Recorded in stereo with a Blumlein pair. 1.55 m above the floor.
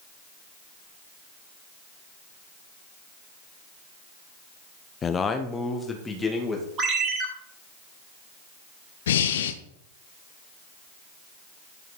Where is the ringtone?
30° right, 4 m.